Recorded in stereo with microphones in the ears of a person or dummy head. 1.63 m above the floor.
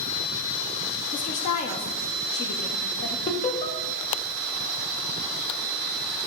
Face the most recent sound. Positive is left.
turn(degrees=30)  # may be behind; listen again after turning